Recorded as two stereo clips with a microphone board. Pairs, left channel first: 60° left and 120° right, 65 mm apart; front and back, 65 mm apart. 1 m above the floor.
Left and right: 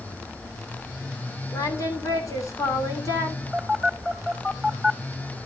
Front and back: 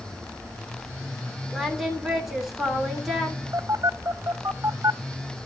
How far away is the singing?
About 2.5 m.